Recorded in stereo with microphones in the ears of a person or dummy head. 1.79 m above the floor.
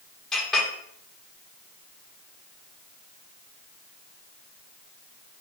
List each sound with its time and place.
0.3 s a clink: centre (ahead or behind), 1.6 m